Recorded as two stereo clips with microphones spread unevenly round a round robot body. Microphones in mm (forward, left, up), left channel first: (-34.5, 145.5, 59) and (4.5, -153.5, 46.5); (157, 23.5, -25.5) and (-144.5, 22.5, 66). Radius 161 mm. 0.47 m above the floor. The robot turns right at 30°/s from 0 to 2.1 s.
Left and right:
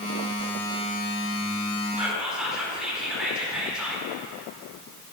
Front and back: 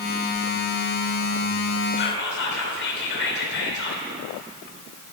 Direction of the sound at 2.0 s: Straight ahead.